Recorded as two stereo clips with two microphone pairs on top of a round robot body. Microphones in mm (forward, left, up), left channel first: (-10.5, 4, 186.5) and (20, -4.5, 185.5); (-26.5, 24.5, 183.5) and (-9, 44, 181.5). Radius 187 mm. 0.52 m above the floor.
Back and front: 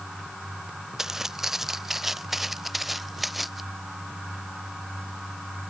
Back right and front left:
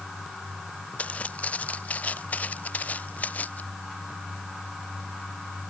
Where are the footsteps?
90° right; by 3.6 s 100° right.